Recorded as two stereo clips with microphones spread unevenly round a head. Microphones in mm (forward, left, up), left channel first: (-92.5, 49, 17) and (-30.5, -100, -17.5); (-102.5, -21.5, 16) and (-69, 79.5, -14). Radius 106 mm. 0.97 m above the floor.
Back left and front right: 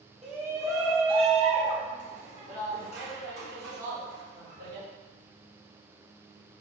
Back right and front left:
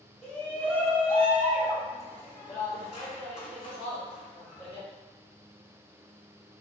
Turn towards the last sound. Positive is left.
turn(degrees=-40)